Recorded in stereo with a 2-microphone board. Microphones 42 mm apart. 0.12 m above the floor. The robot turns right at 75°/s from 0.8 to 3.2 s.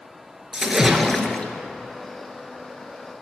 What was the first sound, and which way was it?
A splash, 20° right.